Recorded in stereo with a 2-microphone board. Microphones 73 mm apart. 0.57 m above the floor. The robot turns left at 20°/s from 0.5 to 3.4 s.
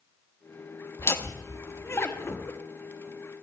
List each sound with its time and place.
1.0 s laughter: 35° left (ahead or behind), 1.0 m